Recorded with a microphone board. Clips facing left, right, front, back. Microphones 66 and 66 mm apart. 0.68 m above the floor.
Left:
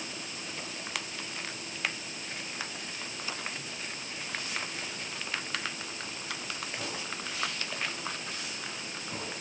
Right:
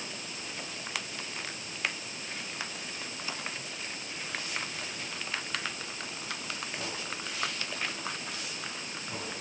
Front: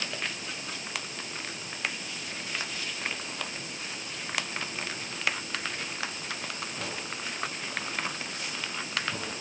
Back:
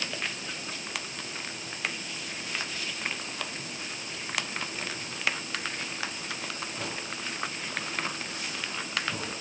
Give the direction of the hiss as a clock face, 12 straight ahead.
No hiss in this recording.